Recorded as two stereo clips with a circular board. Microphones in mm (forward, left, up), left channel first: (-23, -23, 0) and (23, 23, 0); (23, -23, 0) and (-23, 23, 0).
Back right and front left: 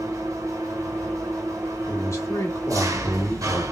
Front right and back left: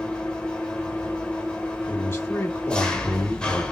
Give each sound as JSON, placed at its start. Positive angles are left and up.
{"t": 0.0, "sound": "an engine running", "azimuth_deg": 30, "distance_m": 1.1}
{"t": 1.9, "sound": "a man speaking", "azimuth_deg": -90, "distance_m": 1.8}